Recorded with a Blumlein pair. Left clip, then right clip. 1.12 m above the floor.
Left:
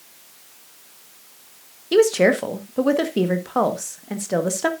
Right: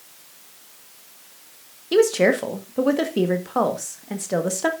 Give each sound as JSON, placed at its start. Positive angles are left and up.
{"t": 1.9, "sound": "a woman speaking", "azimuth_deg": 5, "distance_m": 1.4}